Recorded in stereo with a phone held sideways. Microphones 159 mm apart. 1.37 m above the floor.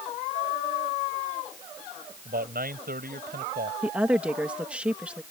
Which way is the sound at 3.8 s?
10° right (ahead or behind).